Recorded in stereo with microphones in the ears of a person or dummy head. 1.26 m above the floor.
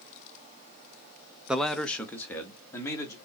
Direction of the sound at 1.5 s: Centre (ahead or behind).